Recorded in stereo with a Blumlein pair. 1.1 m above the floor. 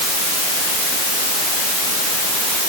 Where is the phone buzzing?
I don't hear a phone buzzing.